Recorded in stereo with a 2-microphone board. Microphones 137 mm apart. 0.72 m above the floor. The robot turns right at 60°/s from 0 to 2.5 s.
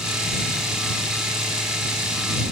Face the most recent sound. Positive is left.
No sound to turn to.